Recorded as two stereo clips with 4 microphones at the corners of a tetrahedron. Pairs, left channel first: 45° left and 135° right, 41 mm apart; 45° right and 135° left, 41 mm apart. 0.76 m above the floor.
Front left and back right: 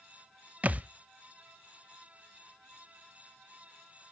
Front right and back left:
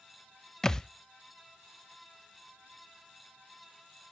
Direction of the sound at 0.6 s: 115° right.